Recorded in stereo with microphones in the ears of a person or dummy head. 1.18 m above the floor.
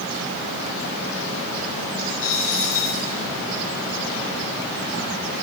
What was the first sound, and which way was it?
A dropped coin, 45° left (ahead or behind).